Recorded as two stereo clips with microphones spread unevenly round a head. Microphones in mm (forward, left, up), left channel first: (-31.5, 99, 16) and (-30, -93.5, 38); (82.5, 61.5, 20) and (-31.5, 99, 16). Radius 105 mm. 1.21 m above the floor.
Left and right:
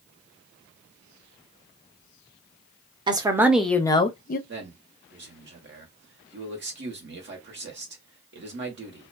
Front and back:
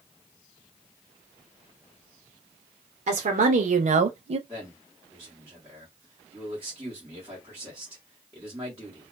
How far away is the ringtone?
I don't hear a ringtone.